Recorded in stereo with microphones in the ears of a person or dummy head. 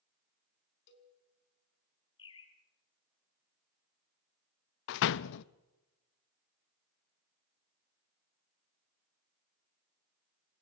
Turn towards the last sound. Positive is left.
turn(degrees=55)  # may be behind; listen again after turning